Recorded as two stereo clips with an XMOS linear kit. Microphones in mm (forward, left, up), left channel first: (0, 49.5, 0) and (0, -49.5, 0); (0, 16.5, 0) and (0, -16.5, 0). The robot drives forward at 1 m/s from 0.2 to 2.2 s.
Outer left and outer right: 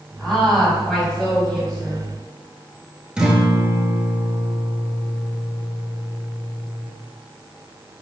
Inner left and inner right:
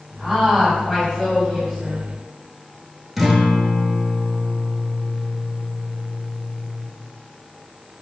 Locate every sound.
0.2 s a woman speaking: 5° left (ahead or behind), 1.8 m
3.2 s a guitar: 5° right (ahead or behind), 0.8 m